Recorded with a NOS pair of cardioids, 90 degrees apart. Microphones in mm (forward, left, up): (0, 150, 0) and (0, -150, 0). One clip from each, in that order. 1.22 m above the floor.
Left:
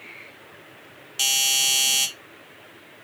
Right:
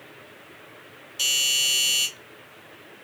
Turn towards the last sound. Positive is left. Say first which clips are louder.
# left 1 dB
turn(degrees=60)